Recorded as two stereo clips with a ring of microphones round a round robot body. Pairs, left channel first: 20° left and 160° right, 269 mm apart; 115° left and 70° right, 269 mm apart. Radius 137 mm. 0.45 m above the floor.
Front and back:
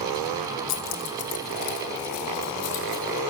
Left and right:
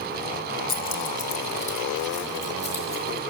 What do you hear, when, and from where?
0.7 s keys jangling: 60° left, 1.0 m; by 3.2 s 45° left, 4.5 m